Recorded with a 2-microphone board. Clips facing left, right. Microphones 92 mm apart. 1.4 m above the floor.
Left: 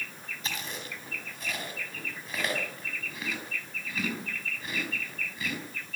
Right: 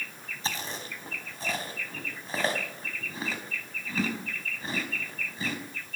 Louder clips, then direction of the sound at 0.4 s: Right 3 dB; 30° right (ahead or behind).